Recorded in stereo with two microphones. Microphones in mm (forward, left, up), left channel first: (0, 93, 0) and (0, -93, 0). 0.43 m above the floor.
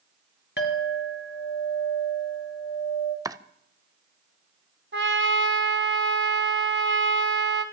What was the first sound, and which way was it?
A clink, 75° left (ahead or behind).